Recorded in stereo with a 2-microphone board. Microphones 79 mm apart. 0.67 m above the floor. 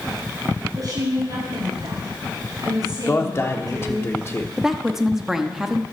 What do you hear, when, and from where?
0.8 s a woman speaking: 50° right (ahead or behind), 5.5 m
3.1 s a man speaking: 35° left (ahead or behind), 1.3 m
4.6 s a woman speaking: 5° right (ahead or behind), 1.0 m